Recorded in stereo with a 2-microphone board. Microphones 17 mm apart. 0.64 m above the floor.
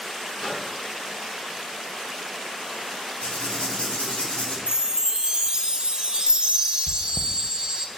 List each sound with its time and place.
0.4 s a microwave: 35° left (ahead or behind), 4.5 m
3.2 s writing: 75° left (ahead or behind), 4 m
4.7 s a chime: 50° right (ahead or behind), 0.8 m
6.9 s chewing: 40° right (ahead or behind), 0.5 m